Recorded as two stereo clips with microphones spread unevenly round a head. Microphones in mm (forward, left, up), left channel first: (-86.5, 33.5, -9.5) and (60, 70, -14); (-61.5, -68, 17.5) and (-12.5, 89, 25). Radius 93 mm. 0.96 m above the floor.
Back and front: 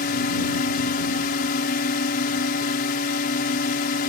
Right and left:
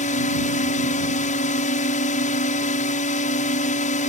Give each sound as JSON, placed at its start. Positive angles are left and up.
{"t": 0.0, "sound": "a drone", "azimuth_deg": -145}